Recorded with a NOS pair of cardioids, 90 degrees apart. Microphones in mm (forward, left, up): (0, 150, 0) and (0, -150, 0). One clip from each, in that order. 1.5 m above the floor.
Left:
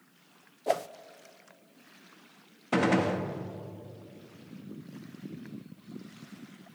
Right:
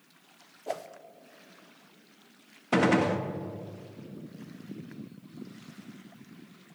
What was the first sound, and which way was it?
A whoosh, 30° left.